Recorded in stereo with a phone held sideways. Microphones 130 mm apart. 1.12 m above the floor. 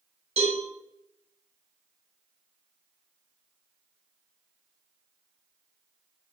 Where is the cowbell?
55° right (ahead or behind), 1.2 m.